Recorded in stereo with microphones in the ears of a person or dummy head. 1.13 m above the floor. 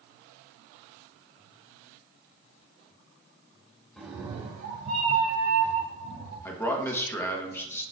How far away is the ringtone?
I don't hear a ringtone.